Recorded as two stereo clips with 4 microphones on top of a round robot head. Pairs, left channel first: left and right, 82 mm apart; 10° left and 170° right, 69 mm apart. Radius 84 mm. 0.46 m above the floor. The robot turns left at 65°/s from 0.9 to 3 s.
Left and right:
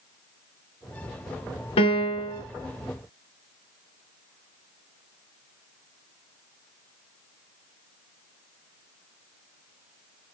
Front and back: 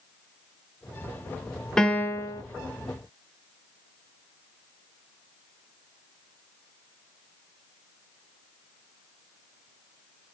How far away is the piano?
About 0.7 m.